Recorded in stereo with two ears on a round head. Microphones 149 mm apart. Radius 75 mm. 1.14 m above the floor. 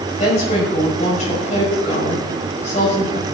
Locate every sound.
0.2 s a woman speaking: 45° left (ahead or behind), 5.5 m